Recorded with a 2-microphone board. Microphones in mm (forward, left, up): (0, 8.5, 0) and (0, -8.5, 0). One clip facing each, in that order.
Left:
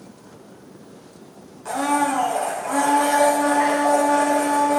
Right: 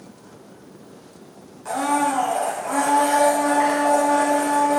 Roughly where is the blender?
Centre.